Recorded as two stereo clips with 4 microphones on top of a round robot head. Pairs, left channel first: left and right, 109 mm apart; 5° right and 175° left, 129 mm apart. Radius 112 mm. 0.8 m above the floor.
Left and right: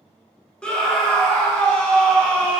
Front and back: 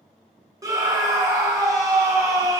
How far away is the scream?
About 1.0 m.